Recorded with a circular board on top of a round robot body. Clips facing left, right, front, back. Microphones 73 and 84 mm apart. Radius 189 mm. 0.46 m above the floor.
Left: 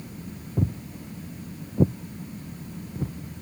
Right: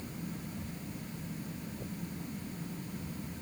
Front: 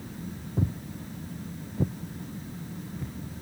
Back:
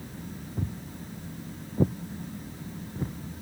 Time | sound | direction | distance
0.6 | footsteps | 70° left | ?